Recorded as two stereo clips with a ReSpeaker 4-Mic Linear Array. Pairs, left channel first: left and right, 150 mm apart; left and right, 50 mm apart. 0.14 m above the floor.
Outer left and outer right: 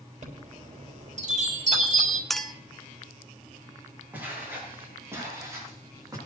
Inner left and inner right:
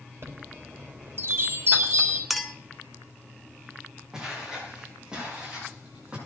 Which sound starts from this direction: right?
A chime, at 0.2 s.